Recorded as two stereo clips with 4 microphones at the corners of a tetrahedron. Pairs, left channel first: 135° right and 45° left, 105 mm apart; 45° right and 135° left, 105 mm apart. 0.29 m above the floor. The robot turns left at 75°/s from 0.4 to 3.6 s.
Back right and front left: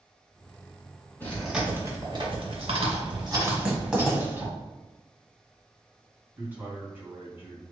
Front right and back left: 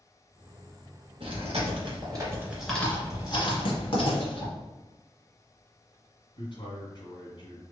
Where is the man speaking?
25° right, 2.0 m.